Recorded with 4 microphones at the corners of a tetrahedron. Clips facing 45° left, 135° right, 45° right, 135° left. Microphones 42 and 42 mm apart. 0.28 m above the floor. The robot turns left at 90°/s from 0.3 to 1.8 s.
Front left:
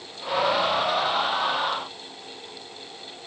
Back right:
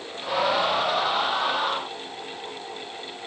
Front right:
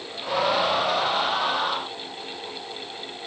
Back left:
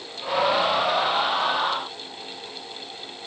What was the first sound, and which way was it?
Only background noise.